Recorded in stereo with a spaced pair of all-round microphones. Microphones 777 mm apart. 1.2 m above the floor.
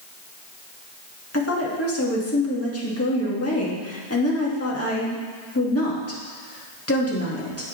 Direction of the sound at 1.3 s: 20° left (ahead or behind).